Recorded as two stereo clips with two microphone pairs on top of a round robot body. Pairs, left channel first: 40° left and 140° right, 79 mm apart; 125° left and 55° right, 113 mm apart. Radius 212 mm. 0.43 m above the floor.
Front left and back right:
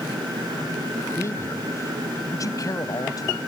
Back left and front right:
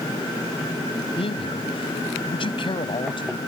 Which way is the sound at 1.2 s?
95° left.